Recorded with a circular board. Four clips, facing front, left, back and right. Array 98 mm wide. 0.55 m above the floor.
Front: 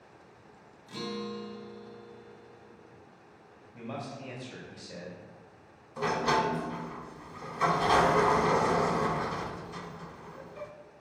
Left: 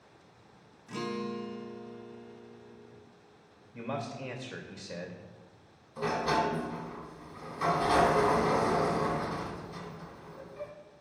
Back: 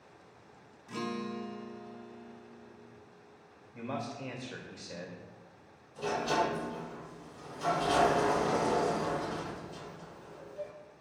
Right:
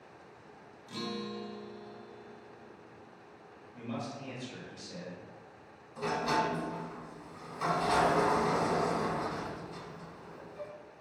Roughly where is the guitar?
Behind left.